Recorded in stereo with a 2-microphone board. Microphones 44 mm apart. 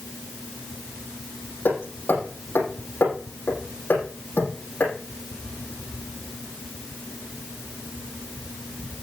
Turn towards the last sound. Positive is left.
turn(degrees=45)  # may be behind; listen again after turning